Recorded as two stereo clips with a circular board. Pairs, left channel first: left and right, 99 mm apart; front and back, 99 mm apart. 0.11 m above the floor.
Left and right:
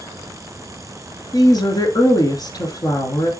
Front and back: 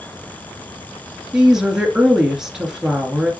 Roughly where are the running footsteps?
I don't hear running footsteps.